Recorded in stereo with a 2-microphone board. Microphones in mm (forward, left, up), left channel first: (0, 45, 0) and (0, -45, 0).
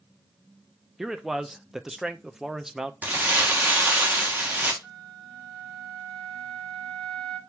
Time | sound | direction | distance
1.0 | a man speaking | 5° right (ahead or behind) | 0.5 m
3.0 | crumpling | 20° right (ahead or behind) | 1.2 m
4.8 | a flute | 5° left (ahead or behind) | 1.9 m